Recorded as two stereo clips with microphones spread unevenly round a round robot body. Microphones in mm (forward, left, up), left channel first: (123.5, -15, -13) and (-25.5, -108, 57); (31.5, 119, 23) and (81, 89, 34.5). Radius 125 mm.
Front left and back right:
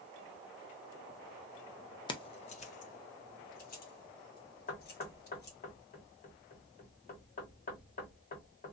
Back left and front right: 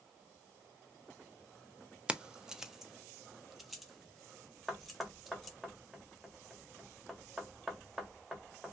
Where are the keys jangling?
50° left, 0.6 m; by 5.6 s 60° left, 2.5 m.